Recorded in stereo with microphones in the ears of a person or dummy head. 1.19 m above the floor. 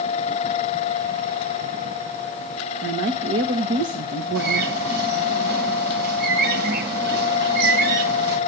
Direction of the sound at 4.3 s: 55° right (ahead or behind).